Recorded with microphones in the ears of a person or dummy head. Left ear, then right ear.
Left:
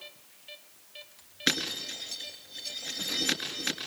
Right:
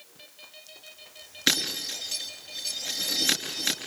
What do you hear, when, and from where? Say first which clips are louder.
1.5 s breaking glass: right 4 dB; centre (ahead or behind), 5.5 m